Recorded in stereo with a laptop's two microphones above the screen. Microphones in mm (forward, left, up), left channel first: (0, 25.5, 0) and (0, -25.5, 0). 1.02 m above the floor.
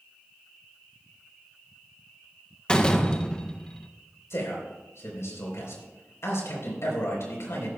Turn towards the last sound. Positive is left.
turn(degrees=60)  # may be behind; listen again after turning